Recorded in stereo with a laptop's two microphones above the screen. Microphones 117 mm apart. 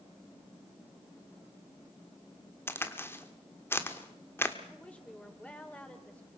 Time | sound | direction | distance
2.7 | a crack | 20° left (ahead or behind) | 1.1 m
4.7 | a woman speaking | 10° left (ahead or behind) | 4 m